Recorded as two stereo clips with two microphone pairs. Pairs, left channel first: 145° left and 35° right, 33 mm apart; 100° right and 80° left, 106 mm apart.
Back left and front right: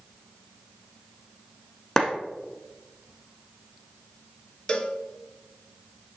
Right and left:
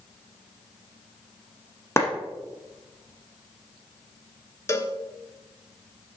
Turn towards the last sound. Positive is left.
turn(degrees=-155)